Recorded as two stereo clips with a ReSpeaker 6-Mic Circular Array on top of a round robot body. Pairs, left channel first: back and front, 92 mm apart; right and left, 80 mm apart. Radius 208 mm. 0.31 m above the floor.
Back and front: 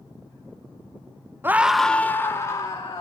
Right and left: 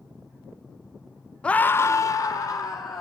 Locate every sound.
1.4 s a scream: 30° right, 1.1 m; by 3.0 s 130° right, 2.5 m